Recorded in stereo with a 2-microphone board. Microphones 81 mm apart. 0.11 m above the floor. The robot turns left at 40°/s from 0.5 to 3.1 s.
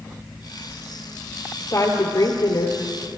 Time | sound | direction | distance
1.6 | a woman speaking | 135° left | 2 m